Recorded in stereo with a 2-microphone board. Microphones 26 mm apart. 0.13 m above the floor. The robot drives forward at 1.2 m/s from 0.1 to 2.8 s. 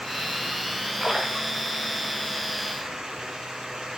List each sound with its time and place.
1.0 s a splash: 25° right (ahead or behind), 5.5 m; by 2.0 s 30° right (ahead or behind), 4.5 m